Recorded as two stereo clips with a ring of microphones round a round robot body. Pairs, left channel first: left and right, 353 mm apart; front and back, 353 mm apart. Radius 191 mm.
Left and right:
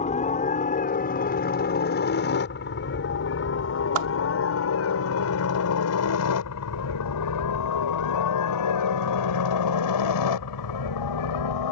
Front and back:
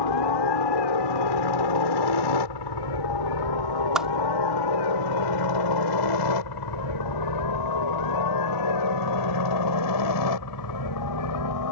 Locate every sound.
0.0 s a helicopter: 15° left; by 11.7 s 50° left
4.0 s a whoosh: 90° right